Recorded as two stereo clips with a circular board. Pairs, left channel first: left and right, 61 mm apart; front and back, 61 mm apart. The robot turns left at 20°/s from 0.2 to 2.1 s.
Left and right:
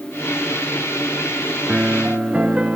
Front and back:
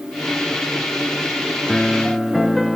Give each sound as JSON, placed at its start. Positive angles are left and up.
{"t": 1.7, "sound": "a piano", "azimuth_deg": -75, "distance_m": 0.6}